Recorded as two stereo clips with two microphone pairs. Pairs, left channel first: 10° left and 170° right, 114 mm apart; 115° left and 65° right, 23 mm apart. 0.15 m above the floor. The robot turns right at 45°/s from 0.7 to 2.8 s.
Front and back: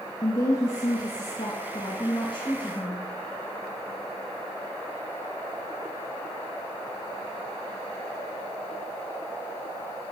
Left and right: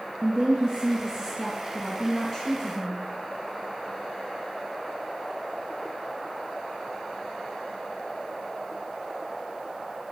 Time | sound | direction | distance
0.2 | a woman speaking | 40° right | 2.5 m